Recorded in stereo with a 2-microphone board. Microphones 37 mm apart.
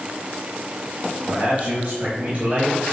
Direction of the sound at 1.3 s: 45° right (ahead or behind).